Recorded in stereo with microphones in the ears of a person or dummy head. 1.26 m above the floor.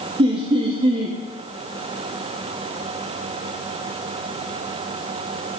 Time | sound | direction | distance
0.2 | laughter | 30° right (ahead or behind) | 0.8 m